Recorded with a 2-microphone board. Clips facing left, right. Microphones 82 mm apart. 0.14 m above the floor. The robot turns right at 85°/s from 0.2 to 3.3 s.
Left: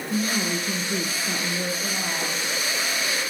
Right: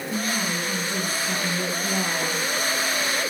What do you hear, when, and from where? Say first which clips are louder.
0.1 s a woman speaking: left 2 dB; 40° left, 2 m; by 2.4 s 130° right, 2 m